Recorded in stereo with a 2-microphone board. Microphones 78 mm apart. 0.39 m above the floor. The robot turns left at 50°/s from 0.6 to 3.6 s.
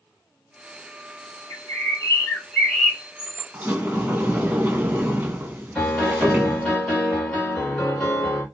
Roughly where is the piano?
Centre.